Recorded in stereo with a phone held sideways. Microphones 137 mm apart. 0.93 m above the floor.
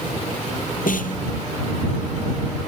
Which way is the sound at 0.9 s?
85° left.